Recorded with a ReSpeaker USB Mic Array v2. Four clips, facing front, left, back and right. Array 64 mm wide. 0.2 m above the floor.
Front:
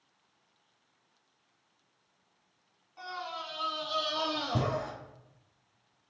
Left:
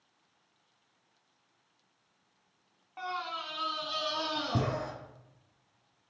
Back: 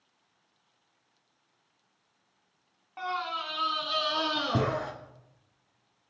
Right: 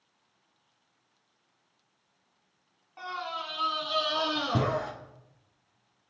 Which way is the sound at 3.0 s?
165° left.